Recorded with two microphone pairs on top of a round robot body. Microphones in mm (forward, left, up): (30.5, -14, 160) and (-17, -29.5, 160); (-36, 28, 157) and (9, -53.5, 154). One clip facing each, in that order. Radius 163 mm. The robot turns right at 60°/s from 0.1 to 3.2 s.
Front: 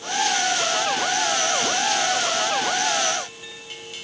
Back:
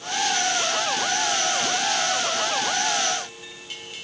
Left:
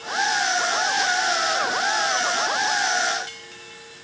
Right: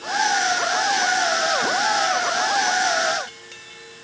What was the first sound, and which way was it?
Only background noise.